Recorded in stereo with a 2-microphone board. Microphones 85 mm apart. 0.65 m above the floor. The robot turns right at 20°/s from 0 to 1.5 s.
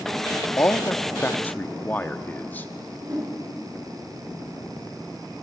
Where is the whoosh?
60° right (ahead or behind), 9 m.